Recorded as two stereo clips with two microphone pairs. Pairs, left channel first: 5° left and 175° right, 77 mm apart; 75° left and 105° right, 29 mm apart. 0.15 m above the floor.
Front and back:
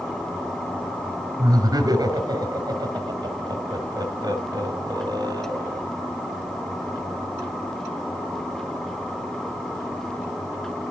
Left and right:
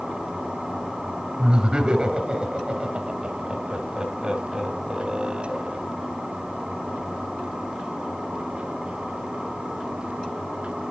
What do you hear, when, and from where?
1.4 s laughter: 160° right, 2.5 m